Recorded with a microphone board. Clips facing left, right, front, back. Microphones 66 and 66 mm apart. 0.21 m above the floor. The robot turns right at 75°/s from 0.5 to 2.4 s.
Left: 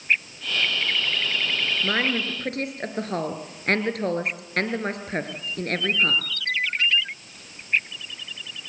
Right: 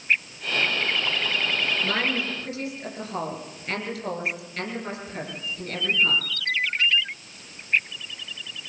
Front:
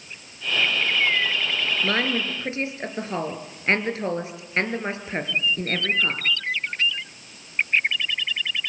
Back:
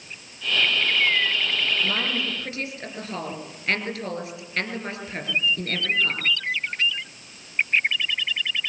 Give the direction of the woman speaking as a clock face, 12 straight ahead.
11 o'clock.